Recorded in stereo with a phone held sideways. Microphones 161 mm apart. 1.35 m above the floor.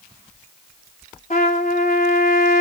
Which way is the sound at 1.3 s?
50° left (ahead or behind).